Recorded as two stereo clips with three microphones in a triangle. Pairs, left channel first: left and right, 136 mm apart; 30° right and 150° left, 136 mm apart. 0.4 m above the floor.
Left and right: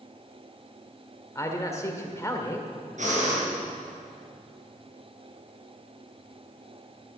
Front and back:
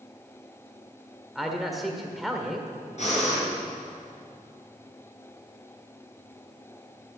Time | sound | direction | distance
1.4 | a man speaking | 60° left | 1.5 m
3.0 | breathing | 65° right | 5.5 m